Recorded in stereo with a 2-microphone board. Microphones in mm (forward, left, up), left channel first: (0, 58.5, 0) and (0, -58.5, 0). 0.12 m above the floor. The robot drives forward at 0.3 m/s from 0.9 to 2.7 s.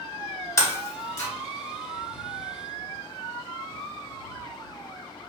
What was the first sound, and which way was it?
Breaking glass, 25° left (ahead or behind).